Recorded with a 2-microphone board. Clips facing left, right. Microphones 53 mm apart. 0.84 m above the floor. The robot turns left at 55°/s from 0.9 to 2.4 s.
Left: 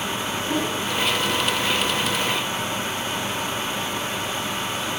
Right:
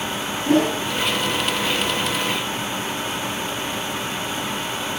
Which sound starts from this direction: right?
A whoosh, at 0.5 s.